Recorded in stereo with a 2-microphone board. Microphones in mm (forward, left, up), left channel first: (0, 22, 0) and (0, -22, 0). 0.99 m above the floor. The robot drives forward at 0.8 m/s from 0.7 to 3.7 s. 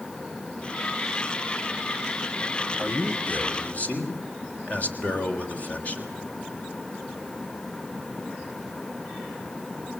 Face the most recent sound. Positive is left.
turn(degrees=40)  # may be behind; listen again after turning